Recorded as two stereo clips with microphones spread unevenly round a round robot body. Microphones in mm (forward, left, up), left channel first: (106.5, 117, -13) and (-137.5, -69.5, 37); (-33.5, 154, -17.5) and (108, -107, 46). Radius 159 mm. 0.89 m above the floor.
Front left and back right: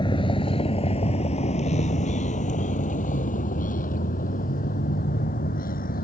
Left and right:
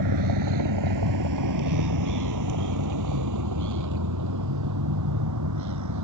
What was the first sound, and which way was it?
A vehicle, 40° right.